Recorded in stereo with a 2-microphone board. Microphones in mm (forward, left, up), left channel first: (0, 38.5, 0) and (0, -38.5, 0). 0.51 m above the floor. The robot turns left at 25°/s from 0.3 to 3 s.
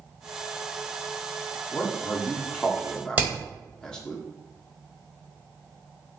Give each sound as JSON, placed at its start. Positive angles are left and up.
{"t": 1.7, "sound": "a man speaking", "side_deg": 20, "distance_m": 0.7}
{"t": 3.2, "sound": "hammering", "side_deg": -20, "distance_m": 1.4}